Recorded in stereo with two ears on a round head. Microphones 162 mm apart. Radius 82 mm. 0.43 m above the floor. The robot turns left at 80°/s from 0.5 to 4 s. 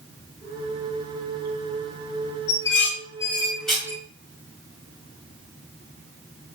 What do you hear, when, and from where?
2.5 s dishes clattering: 75° left (ahead or behind), 3 m; by 4.0 s 20° right (ahead or behind), 3 m